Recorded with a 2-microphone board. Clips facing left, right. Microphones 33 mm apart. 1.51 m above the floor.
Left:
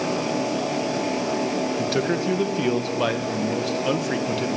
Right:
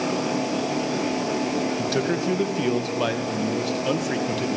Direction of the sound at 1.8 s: 5° left (ahead or behind).